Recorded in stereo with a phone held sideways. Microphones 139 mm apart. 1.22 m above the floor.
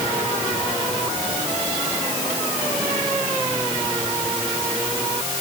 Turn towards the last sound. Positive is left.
No sound to turn to.